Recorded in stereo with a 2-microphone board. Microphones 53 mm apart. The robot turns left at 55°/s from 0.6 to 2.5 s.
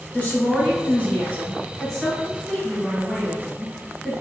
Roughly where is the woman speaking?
Left.